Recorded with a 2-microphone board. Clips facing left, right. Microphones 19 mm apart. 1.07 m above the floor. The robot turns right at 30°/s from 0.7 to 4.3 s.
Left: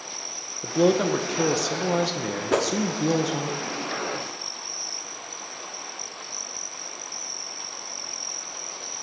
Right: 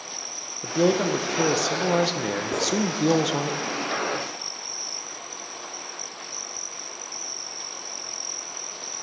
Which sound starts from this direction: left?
A whoosh, at 2.5 s.